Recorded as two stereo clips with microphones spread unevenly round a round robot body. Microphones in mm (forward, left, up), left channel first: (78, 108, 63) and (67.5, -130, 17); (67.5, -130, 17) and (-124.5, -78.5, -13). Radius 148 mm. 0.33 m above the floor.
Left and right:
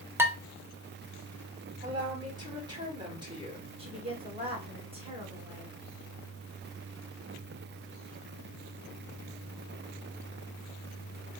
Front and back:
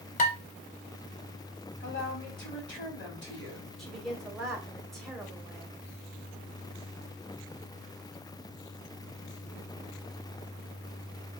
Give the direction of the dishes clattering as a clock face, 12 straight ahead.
1 o'clock.